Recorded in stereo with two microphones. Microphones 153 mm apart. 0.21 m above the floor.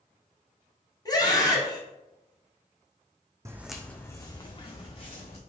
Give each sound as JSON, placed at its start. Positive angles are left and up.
{"t": 1.1, "sound": "a scream", "side_deg": 25, "distance_m": 1.2}
{"t": 3.5, "sound": "footsteps", "side_deg": -20, "distance_m": 0.6}